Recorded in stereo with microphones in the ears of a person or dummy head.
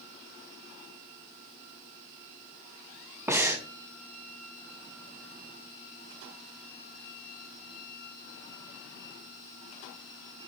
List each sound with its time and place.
3.3 s breathing: 10° right (ahead or behind), 0.7 m